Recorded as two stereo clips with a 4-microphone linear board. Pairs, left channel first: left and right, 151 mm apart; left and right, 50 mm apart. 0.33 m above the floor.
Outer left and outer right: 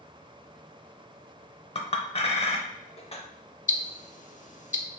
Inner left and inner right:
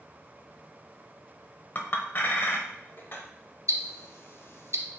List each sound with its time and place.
1.8 s a clink: 45° left (ahead or behind), 0.6 m
3.7 s ticking: 55° left (ahead or behind), 0.6 m